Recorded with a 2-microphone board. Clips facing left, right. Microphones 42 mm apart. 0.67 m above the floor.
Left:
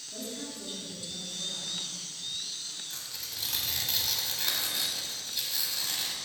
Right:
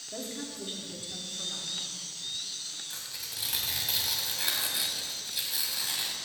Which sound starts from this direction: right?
A woman speaking, at 0.1 s.